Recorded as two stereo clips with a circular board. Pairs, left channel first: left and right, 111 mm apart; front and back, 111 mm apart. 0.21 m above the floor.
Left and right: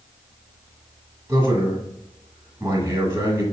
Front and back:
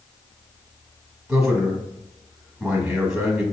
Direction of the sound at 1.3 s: 110° right.